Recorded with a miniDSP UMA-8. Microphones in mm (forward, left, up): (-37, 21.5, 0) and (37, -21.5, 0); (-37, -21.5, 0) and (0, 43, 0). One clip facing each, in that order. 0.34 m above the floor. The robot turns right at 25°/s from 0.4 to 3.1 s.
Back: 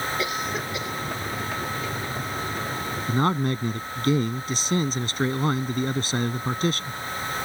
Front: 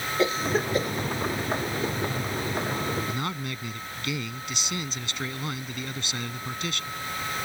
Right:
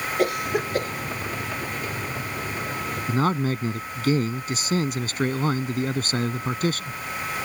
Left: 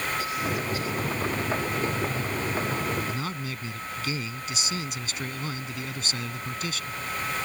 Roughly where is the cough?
Right.